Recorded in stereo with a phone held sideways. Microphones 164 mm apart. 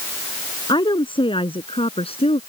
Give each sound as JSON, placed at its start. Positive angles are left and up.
{"t": 0.7, "sound": "a woman speaking", "side_deg": 30}